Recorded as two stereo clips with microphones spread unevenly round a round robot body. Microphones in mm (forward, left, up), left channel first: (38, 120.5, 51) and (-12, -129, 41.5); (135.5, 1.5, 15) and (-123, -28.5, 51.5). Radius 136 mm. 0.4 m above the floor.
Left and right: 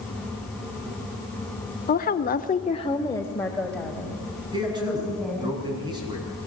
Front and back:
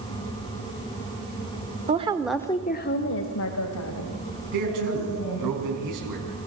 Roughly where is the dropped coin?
No dropped coin in this recording.